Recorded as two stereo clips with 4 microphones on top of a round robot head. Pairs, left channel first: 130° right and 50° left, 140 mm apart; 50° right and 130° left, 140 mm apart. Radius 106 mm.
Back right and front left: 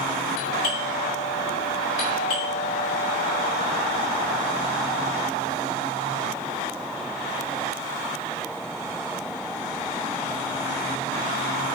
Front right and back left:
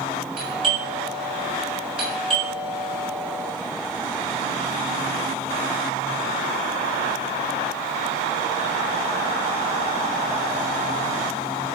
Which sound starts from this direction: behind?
A doorbell, at 0.4 s.